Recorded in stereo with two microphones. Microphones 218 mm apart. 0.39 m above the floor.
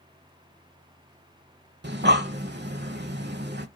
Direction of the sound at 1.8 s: 50° right (ahead or behind).